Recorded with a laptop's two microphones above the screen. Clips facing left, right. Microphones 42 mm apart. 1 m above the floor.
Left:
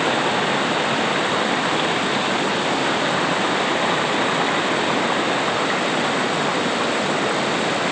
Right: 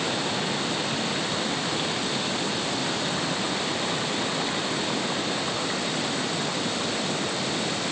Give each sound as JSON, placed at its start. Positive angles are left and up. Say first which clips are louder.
{"t": 0.0, "sound": "running water", "louder": "left 8 dB", "side_deg": 35}